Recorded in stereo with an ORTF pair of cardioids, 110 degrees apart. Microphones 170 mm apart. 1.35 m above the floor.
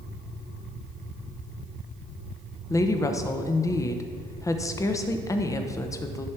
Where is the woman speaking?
20° left, 0.9 m.